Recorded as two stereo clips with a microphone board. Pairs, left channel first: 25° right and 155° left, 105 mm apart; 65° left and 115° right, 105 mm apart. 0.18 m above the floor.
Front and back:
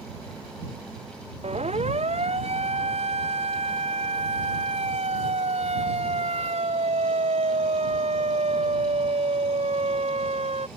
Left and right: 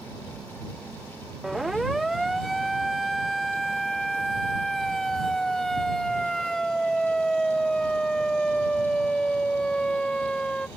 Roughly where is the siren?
Behind.